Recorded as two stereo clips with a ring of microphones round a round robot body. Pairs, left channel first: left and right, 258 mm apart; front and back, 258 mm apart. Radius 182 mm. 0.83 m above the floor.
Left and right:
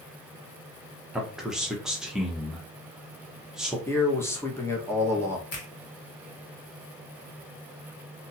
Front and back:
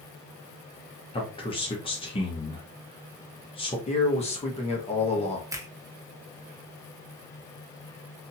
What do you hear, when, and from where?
1.1 s a man speaking: 5° right, 0.9 m
3.9 s a man speaking: 20° left, 1.0 m
5.5 s a finger snap: 105° left, 1.2 m